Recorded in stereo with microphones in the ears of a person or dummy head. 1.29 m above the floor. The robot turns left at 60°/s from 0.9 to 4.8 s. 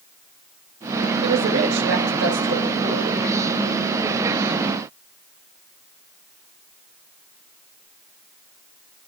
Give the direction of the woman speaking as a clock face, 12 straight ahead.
2 o'clock.